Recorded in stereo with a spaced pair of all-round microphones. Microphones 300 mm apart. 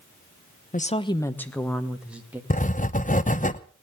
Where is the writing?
25° left (ahead or behind), 0.7 m.